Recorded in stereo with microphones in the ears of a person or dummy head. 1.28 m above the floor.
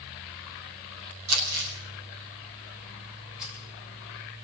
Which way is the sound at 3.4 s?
5° right (ahead or behind).